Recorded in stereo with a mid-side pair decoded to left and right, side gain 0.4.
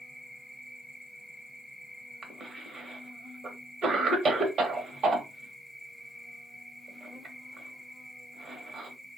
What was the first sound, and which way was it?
An insect, 10° right.